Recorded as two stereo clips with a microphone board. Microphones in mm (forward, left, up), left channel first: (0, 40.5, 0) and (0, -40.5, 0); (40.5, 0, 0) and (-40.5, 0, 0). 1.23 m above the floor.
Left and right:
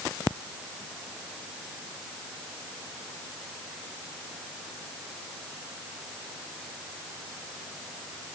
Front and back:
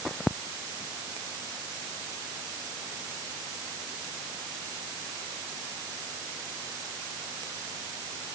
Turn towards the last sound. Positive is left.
No sound to turn to.